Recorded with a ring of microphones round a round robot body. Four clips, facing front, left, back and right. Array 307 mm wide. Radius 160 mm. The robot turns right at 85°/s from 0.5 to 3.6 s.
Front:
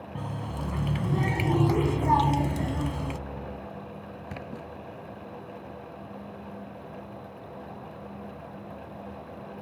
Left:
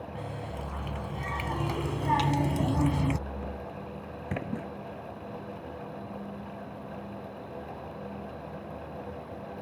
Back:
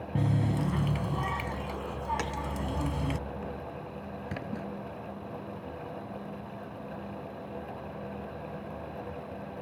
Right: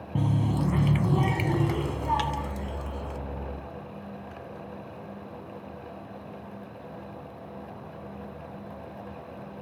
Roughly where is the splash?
Left.